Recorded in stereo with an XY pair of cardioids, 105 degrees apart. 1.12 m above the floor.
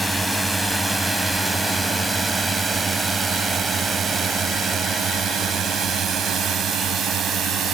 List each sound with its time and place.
0.0 s a drone: 15° right; by 7.8 s 75° right